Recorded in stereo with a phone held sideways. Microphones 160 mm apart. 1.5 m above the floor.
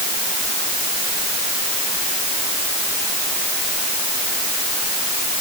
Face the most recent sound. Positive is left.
No sound to turn to.